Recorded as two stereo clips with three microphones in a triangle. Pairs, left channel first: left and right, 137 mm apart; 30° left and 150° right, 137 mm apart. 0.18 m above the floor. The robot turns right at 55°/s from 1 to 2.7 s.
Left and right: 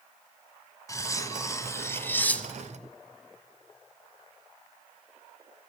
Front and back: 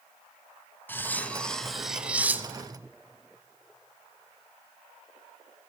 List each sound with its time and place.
0.9 s cutlery clinking: 80° left, 0.7 m; by 2.9 s 175° left, 0.7 m